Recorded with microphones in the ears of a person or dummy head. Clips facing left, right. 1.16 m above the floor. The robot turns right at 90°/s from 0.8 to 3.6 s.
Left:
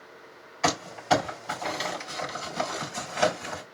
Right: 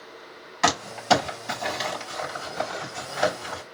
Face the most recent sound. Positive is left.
turn(degrees=30)  # may be behind; listen again after turning